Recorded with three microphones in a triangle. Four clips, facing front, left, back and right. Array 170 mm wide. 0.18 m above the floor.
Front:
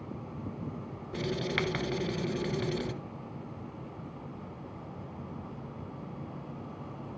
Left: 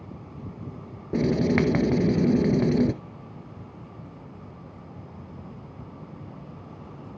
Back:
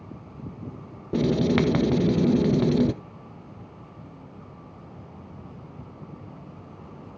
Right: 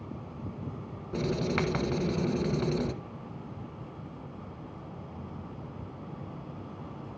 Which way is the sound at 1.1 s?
140° left.